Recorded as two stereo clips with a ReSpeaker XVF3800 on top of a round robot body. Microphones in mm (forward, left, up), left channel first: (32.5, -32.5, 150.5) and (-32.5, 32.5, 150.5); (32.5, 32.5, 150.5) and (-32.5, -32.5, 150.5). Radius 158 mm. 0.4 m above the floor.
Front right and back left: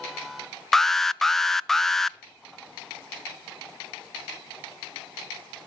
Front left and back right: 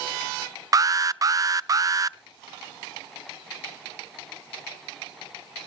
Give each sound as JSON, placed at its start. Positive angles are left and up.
{"t": 0.7, "sound": "an alarm", "azimuth_deg": -130, "distance_m": 0.5}